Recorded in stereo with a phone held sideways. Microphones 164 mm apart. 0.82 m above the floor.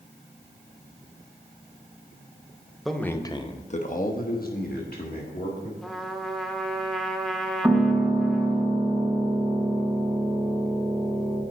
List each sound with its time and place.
2.9 s a man speaking: centre (ahead or behind), 0.7 m; by 5.7 s 70° left (ahead or behind), 2.0 m
5.8 s a trumpet: 5° left (ahead or behind), 0.8 m
7.6 s a piano: centre (ahead or behind), 3.5 m